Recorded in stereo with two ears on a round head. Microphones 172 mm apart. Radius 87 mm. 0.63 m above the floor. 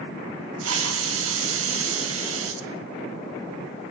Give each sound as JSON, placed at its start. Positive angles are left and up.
{"t": 0.6, "sound": "a hiss", "side_deg": -80, "distance_m": 4.5}